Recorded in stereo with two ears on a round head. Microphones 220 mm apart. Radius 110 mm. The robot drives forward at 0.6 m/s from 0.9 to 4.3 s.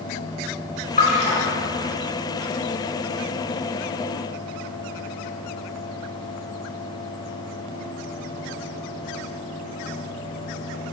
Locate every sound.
1.0 s a splash: 35° left (ahead or behind), 3.5 m